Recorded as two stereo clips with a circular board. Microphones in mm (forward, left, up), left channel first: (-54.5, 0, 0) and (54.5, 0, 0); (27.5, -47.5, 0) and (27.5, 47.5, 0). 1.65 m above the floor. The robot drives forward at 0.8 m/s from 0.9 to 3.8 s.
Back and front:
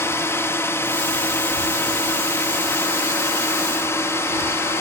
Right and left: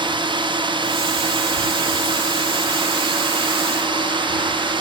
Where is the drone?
115° left.